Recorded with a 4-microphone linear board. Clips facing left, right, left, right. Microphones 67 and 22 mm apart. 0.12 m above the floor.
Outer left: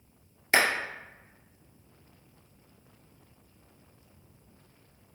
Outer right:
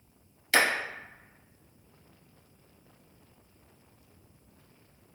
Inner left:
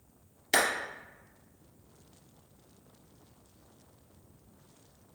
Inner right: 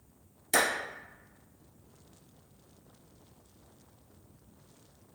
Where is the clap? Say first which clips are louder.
Even, even; 30° left (ahead or behind), 1.9 m.